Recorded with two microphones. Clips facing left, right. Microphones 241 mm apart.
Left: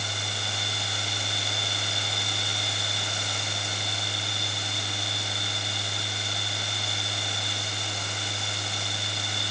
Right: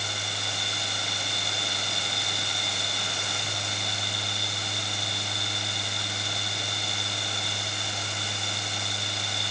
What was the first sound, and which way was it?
Only background noise.